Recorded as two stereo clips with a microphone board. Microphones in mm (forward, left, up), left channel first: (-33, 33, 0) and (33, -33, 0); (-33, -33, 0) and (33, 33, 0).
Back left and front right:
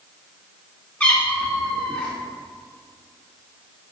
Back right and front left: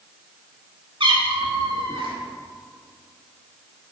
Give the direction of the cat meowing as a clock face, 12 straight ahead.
10 o'clock.